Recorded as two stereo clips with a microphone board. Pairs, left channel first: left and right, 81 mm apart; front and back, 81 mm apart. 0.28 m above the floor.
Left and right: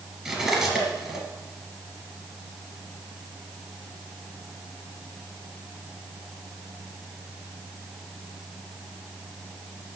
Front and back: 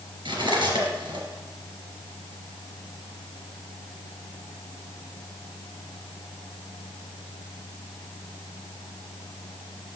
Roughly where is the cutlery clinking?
Behind.